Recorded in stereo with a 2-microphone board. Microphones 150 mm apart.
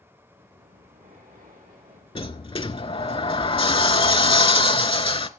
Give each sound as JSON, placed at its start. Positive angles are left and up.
{"t": 0.3, "sound": "breathing", "side_deg": -70, "distance_m": 9.0}
{"t": 2.1, "sound": "a sliding door", "side_deg": 35, "distance_m": 0.6}